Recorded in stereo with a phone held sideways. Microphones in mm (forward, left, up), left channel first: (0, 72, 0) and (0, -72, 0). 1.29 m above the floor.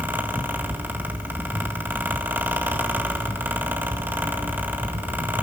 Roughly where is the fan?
Centre.